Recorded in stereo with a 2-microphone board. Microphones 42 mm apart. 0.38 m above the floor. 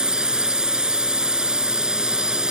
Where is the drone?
20° right (ahead or behind).